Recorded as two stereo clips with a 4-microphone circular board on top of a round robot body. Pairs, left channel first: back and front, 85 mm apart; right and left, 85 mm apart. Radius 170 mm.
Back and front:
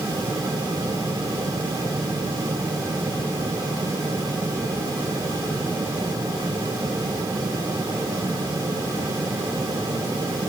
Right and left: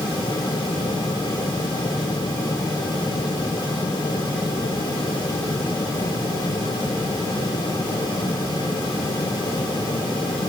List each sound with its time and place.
Only background noise.